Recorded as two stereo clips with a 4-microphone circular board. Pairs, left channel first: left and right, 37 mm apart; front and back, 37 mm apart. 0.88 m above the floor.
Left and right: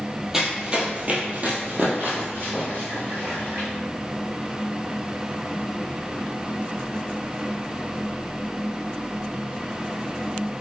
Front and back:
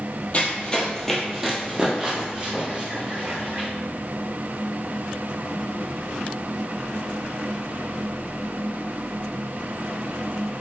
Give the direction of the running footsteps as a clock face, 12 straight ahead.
1 o'clock.